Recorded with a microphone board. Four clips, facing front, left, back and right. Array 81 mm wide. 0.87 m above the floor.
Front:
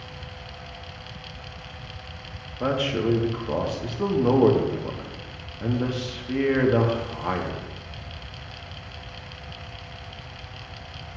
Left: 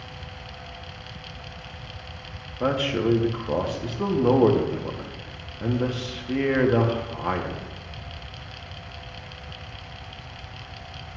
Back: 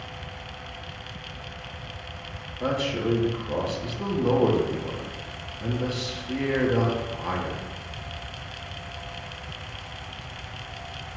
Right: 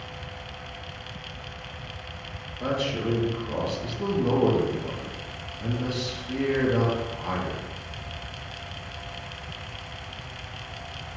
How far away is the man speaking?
About 0.8 m.